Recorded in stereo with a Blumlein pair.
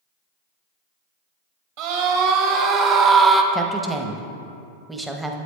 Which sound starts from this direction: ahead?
A woman speaking, at 3.5 s.